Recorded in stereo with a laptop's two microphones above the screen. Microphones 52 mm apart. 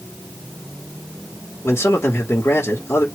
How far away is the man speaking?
About 1.8 m.